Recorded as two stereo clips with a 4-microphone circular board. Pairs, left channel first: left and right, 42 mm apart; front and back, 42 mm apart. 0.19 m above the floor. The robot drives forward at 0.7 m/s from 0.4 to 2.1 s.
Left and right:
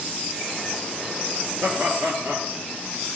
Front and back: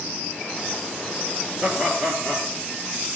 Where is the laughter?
125° right, 3.5 m; by 2.5 s 130° right, 3.5 m.